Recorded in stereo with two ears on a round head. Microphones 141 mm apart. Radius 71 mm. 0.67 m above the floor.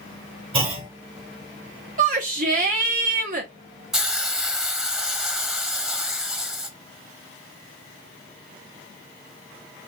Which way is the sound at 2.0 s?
50° right (ahead or behind).